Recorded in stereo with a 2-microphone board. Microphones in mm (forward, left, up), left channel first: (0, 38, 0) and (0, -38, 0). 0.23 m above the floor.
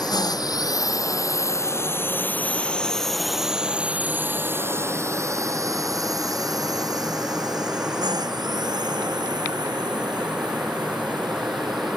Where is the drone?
60° left (ahead or behind); by 12.0 s 70° right (ahead or behind).